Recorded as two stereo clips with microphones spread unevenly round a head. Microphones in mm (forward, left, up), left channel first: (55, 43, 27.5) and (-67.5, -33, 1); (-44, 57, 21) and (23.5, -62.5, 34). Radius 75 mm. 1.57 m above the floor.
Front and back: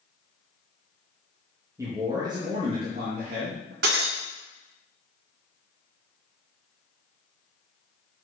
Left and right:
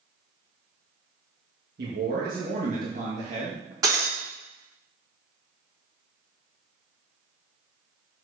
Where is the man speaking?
75° right, 2 m; by 3.7 s 110° right, 2 m.